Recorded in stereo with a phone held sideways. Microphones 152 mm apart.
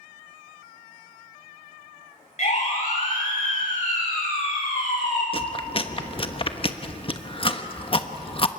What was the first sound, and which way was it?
A siren, 50° left (ahead or behind).